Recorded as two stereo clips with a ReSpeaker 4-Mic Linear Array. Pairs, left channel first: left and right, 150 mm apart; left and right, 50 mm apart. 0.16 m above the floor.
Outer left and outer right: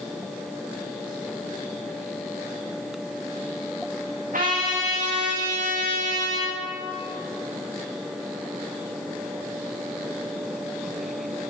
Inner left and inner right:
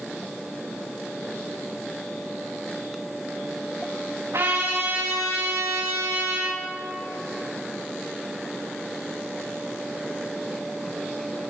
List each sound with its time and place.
4.3 s a trumpet: 70° right (ahead or behind), 8 m